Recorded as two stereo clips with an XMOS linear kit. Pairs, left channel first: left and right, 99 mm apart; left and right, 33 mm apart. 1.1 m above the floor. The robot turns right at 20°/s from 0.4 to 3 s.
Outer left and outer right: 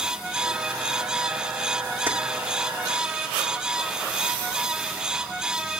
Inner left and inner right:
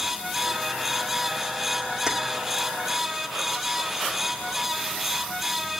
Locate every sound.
2.1 s keys jangling: 20° right (ahead or behind), 1.9 m